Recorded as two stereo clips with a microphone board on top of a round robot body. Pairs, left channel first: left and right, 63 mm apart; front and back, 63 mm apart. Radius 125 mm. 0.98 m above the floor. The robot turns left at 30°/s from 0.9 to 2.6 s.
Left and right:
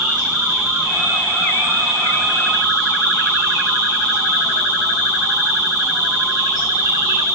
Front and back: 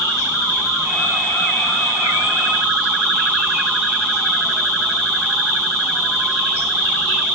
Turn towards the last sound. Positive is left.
turn(degrees=-70)